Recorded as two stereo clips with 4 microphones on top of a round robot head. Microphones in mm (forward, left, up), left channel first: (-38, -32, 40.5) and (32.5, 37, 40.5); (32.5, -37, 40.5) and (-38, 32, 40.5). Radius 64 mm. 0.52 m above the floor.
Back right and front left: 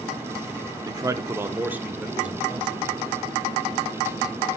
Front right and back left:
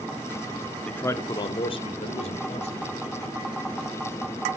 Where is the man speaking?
30° left, 1.0 m; by 2.9 s 40° right, 3 m.